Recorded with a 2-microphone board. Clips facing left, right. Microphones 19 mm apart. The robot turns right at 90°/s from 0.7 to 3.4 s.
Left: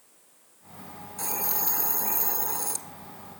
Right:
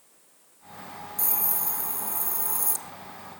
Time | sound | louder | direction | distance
1.2 | a hiss | left 3 dB | 20° left | 1.3 m